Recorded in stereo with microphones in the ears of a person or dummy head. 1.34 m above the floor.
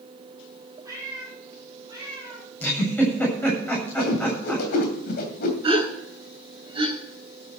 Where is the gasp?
25° right (ahead or behind), 7 m.